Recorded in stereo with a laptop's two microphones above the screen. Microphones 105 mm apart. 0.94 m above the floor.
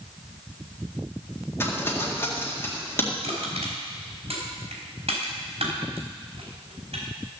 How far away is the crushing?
About 4.5 m.